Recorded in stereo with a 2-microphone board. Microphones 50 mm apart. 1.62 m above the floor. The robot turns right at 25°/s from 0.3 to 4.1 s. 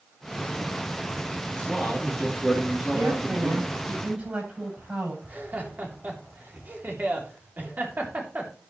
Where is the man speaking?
165° left, 3.5 m; by 3.8 s 140° right, 3.5 m.